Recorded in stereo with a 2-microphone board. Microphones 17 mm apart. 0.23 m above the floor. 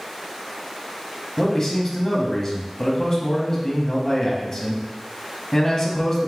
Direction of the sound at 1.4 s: 35° left (ahead or behind).